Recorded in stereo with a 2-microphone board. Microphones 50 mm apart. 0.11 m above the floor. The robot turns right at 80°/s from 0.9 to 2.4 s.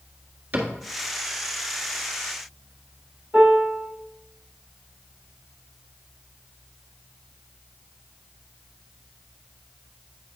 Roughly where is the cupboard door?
Right.